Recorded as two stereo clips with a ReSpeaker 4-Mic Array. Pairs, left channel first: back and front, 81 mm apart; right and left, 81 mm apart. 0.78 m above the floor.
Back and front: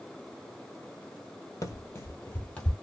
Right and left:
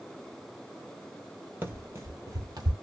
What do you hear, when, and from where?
1.6 s running footsteps: 145° left, 1.2 m; by 2.7 s 105° left, 1.4 m